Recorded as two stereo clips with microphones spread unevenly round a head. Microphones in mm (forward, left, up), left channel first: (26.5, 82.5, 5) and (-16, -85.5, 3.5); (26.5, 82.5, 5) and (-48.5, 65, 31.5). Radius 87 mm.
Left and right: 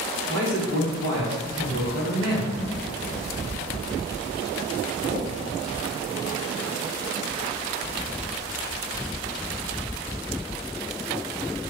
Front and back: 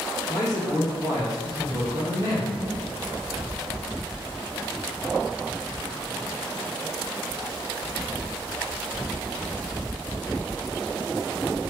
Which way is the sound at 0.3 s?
95° right.